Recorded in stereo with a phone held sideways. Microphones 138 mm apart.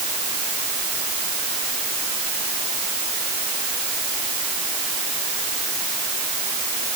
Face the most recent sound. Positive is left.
No sound to turn to.